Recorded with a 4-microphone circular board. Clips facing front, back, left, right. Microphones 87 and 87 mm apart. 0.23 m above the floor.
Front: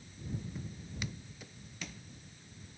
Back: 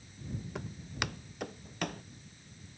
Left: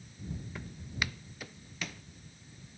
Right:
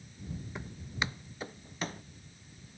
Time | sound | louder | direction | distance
0.6 | footsteps | back 4 dB, right 2 dB | 160° right | ?